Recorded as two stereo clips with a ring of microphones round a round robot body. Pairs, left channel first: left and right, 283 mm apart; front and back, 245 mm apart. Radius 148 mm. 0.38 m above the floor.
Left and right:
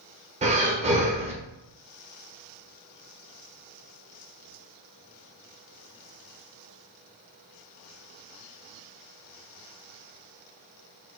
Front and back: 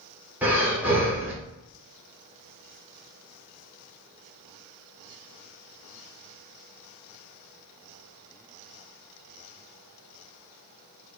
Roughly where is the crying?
No crying in this recording.